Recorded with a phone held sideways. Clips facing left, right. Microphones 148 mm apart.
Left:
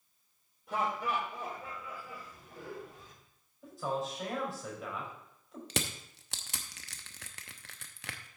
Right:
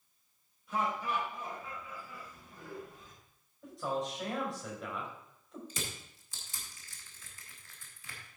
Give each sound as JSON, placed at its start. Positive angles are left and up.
{"t": 0.7, "sound": "laughter", "side_deg": 60, "distance_m": 3.5}
{"t": 3.6, "sound": "a man speaking", "side_deg": 5, "distance_m": 4.5}
{"t": 5.7, "sound": "crushing", "side_deg": 75, "distance_m": 0.8}